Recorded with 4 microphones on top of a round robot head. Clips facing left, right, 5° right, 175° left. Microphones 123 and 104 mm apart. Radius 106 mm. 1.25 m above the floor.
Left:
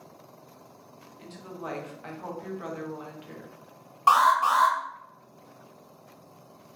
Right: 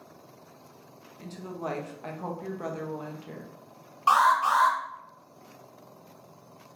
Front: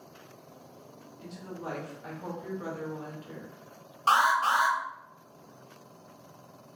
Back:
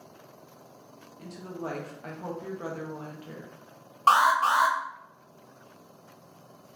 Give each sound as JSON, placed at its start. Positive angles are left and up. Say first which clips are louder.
{"t": 1.2, "sound": "a woman speaking", "louder": "right 4 dB, back 3 dB", "azimuth_deg": -140, "distance_m": 0.8}
{"t": 4.1, "sound": "an alarm", "louder": "left 1 dB, back 3 dB", "azimuth_deg": 130, "distance_m": 1.6}